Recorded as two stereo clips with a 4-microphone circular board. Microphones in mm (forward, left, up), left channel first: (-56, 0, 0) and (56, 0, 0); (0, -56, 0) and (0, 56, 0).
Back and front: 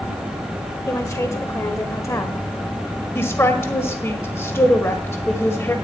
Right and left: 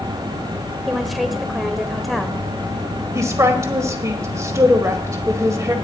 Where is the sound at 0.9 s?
Straight behind, 1.1 m.